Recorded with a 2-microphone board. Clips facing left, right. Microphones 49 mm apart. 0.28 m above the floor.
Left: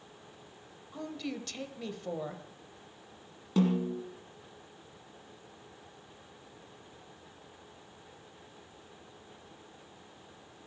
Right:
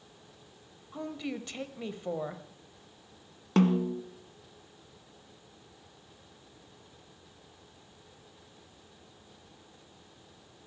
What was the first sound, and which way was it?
A woman speaking, 20° right (ahead or behind).